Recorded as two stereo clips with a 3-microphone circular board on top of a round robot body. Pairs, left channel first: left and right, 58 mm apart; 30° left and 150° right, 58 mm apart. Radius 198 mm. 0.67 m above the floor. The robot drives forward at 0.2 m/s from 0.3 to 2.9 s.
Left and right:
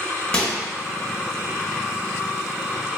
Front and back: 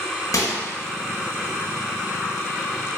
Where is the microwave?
20° left, 1.1 m.